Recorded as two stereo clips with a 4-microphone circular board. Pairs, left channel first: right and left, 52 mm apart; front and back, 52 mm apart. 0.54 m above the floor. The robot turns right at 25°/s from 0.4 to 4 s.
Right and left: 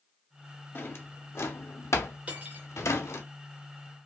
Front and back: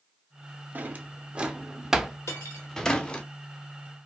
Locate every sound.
0.8 s a drawer: 130° right, 0.5 m; by 3.2 s 65° right, 0.5 m
2.3 s cutlery clinking: 25° left, 0.9 m; by 2.7 s 35° left, 0.9 m